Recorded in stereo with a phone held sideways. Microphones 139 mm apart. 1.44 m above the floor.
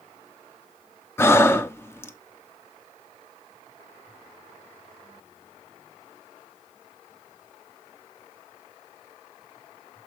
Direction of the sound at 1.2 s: 20° left (ahead or behind).